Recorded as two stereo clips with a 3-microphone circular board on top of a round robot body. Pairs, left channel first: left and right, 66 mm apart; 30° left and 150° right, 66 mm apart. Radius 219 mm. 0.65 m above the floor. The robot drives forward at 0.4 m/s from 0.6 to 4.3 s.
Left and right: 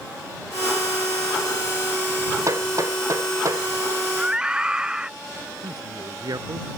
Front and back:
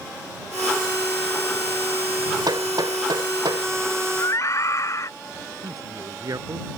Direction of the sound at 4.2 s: 15° right.